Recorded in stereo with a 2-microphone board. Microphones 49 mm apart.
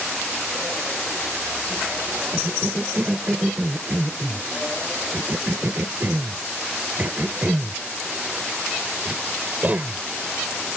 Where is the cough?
35° right (ahead or behind).